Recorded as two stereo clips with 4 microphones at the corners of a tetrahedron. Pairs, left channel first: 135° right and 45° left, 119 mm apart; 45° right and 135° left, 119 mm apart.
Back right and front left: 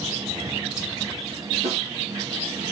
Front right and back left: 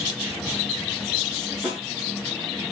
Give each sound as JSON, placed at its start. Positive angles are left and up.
{"t": 1.6, "sound": "a snare drum", "azimuth_deg": 55, "distance_m": 5.0}